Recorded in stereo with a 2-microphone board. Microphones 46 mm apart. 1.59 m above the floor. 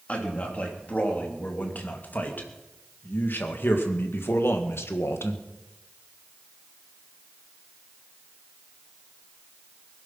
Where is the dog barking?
I don't hear a dog barking.